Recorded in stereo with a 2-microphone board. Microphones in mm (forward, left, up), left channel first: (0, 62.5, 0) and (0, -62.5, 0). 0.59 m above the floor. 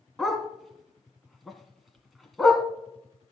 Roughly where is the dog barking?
Centre.